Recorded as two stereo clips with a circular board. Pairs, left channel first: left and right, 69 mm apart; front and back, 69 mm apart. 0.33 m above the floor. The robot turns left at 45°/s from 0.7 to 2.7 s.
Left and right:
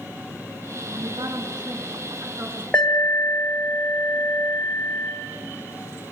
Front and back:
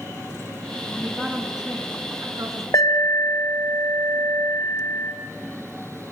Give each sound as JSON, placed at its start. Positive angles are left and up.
{"t": 0.9, "sound": "a woman speaking", "azimuth_deg": -70, "distance_m": 4.5}
{"t": 2.7, "sound": "an alarm", "azimuth_deg": 15, "distance_m": 2.5}